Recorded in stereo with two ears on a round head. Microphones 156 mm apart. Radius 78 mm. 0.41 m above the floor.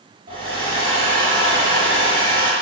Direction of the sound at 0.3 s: 30° right (ahead or behind).